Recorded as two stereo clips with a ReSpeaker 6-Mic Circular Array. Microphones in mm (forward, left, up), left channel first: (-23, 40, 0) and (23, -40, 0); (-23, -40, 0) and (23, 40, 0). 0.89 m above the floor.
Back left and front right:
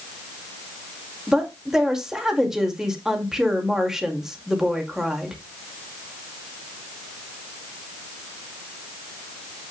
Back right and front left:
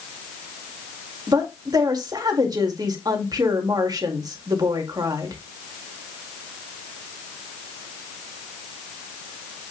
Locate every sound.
1.3 s a woman speaking: 25° left, 1.8 m